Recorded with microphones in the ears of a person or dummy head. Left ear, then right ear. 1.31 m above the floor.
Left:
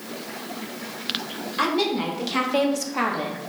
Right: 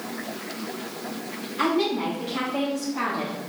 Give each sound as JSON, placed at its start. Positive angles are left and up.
{"t": 1.6, "sound": "a woman speaking", "side_deg": 55, "distance_m": 2.0}